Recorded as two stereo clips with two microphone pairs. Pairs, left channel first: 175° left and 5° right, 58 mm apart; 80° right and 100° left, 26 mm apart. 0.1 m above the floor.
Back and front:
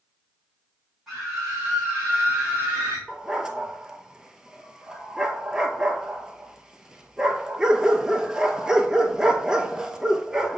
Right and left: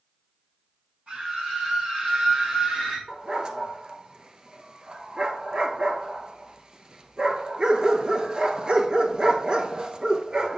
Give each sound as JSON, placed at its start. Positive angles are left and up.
{"t": 1.1, "sound": "a scream", "azimuth_deg": 80, "distance_m": 4.0}
{"t": 3.1, "sound": "a dog barking", "azimuth_deg": 60, "distance_m": 0.8}